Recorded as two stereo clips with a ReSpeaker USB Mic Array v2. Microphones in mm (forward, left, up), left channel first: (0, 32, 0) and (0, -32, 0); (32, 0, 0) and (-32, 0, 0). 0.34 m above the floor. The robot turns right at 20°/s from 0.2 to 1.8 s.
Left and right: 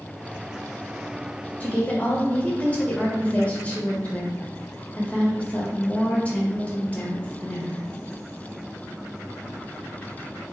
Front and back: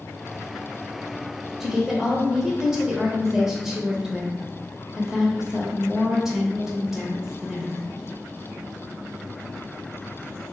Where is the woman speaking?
105° left, 0.9 m; by 7.9 s 110° left, 0.9 m.